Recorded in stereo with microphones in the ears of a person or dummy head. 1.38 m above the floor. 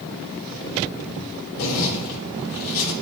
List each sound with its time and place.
1.6 s a zipper: 65° left (ahead or behind), 1.2 m